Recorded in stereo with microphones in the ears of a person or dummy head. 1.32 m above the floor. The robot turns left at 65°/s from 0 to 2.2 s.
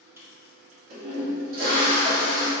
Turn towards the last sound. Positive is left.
turn(degrees=-150)